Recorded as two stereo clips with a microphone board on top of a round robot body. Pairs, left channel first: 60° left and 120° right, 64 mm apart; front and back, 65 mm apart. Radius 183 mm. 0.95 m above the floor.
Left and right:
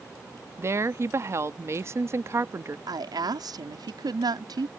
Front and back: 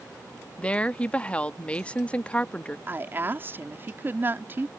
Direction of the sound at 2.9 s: 120° right.